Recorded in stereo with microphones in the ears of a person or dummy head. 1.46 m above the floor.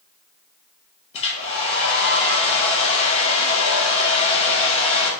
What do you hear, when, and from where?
1.1 s a hair dryer: 30° left (ahead or behind), 1.1 m